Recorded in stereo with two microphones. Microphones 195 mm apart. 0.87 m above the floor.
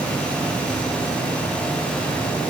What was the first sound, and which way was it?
Only background noise.